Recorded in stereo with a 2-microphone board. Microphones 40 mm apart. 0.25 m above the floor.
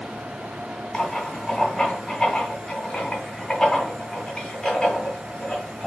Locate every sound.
0.9 s writing: 20° left (ahead or behind), 1.9 m